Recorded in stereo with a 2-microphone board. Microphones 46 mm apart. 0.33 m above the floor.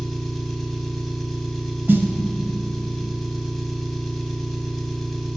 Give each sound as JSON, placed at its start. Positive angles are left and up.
{"t": 0.0, "sound": "an engine running", "side_deg": 5, "distance_m": 0.9}
{"t": 1.9, "sound": "a snare drum", "side_deg": -55, "distance_m": 0.7}